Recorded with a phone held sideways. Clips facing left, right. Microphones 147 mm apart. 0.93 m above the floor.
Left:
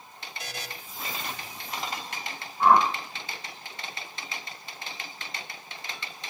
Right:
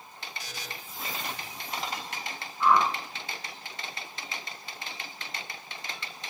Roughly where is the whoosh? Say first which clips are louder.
Left 3 dB; left.